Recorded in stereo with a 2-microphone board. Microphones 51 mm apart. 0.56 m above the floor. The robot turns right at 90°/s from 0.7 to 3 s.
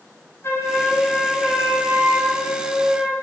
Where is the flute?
120° left, 9 m; by 3.1 s 30° right, 9 m.